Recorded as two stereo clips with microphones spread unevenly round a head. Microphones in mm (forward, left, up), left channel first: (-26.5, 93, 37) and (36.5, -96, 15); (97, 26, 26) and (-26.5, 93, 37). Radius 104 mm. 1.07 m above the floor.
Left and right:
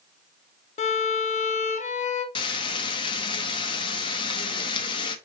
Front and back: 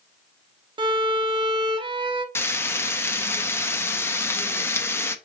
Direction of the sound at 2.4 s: 45° left.